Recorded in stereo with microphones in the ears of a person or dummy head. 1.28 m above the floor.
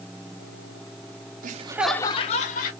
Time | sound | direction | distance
1.4 | laughter | 45° right (ahead or behind) | 0.8 m